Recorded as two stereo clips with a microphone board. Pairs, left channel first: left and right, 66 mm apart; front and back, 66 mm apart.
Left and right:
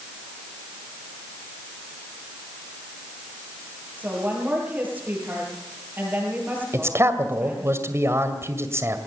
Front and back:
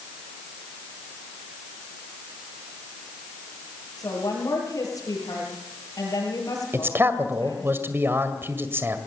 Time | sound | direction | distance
4.0 | a woman speaking | 25° right | 9 m
6.7 | a man speaking | 130° right | 2.0 m